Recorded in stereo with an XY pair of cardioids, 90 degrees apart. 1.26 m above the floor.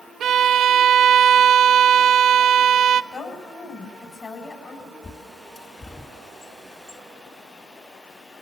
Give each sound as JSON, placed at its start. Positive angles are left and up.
{"t": 0.2, "sound": "a violin", "azimuth_deg": -70, "distance_m": 0.7}
{"t": 3.1, "sound": "a woman speaking", "azimuth_deg": 55, "distance_m": 7.0}
{"t": 5.0, "sound": "a bird", "azimuth_deg": 35, "distance_m": 2.5}